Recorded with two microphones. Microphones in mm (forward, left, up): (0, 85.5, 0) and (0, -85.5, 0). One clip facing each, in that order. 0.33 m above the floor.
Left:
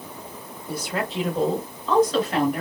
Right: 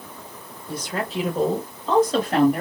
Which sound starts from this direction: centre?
A woman speaking, at 0.7 s.